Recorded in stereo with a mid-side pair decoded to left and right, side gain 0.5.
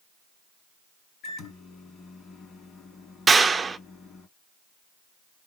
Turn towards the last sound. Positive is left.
turn(degrees=-25)